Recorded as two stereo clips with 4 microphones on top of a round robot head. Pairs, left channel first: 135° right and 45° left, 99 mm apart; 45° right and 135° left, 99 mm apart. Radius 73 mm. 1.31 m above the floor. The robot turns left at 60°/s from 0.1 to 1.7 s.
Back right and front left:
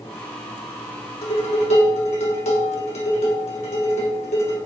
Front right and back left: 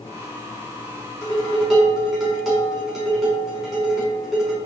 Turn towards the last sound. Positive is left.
turn(degrees=-135)